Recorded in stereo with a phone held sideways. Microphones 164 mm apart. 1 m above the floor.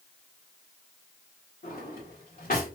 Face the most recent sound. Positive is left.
turn(degrees=60)  # may be behind; listen again after turning